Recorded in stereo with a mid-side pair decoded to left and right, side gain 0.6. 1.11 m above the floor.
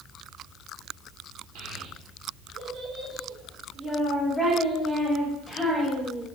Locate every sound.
1.6 s a child speaking: 70° right, 1.5 m; by 6.3 s 10° left, 2.5 m